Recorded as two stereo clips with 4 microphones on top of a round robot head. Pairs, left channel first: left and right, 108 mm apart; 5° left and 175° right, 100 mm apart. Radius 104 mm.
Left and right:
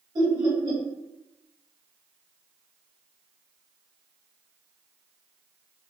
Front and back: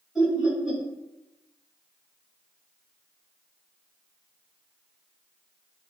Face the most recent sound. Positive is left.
turn(degrees=-95)